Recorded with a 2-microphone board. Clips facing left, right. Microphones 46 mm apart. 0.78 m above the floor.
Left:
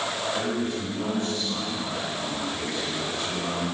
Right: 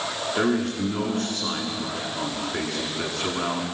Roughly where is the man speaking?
Right.